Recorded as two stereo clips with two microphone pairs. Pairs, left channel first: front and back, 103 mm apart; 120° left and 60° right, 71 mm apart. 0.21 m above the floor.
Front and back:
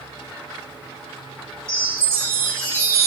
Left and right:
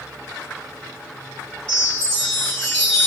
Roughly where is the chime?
Behind.